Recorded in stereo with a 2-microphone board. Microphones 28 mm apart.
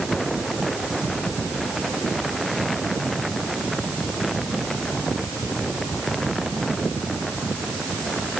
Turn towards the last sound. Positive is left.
No sound to turn to.